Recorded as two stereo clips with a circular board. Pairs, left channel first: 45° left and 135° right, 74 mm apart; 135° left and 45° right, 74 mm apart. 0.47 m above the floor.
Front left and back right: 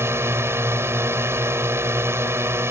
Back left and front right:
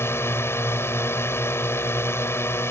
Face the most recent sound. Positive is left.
turn(degrees=180)